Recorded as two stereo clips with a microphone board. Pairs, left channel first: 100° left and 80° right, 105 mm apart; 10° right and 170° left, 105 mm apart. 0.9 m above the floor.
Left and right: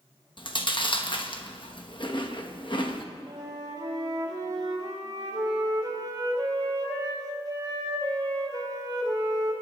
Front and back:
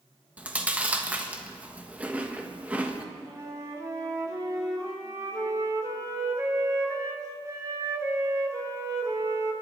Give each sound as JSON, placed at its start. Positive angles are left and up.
{"t": 0.4, "sound": "chewing", "azimuth_deg": 95, "distance_m": 1.1}
{"t": 3.3, "sound": "a flute", "azimuth_deg": -130, "distance_m": 2.5}